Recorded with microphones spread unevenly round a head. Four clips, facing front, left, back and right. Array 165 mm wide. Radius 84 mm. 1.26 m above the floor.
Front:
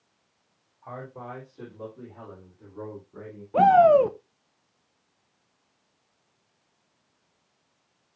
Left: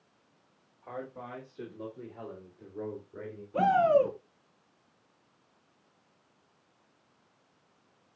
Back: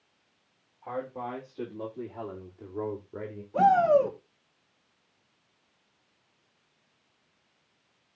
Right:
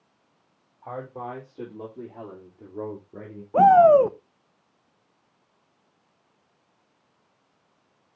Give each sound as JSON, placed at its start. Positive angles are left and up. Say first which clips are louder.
{"t": 0.8, "sound": "a man speaking", "louder": "right 6 dB, back 4 dB", "azimuth_deg": -100, "distance_m": 4.0}
{"t": 3.5, "sound": "a shout", "louder": "right 10 dB, front 5 dB", "azimuth_deg": -60, "distance_m": 1.3}